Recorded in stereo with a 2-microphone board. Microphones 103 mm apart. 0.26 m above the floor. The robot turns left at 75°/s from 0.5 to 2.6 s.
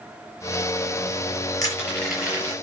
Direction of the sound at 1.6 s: 40° left (ahead or behind).